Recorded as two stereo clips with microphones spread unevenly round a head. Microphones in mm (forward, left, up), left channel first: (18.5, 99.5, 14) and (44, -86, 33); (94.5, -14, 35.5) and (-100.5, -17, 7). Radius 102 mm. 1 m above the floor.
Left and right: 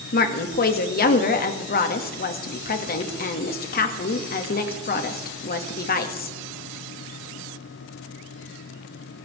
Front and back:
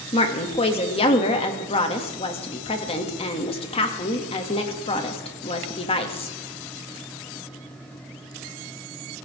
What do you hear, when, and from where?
0.1 s a woman speaking: 65° left, 2.0 m